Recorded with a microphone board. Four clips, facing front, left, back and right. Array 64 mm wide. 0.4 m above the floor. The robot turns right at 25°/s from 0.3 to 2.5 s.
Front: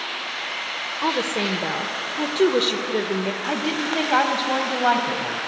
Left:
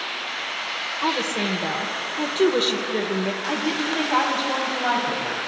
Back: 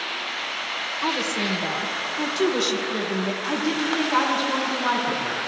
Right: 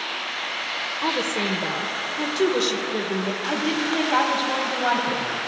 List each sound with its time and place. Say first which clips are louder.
1.0 s a woman speaking: left 1 dB, front 3 dB; 10° right, 1.0 m; by 3.3 s 25° left, 1.0 m
3.4 s a woman speaking: even, even; 5° right, 2.5 m